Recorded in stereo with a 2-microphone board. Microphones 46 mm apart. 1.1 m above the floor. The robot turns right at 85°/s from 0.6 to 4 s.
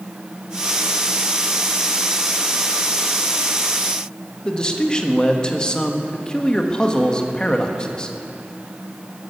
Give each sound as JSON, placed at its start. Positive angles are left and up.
{"t": 4.5, "sound": "a man speaking", "side_deg": 20, "distance_m": 1.3}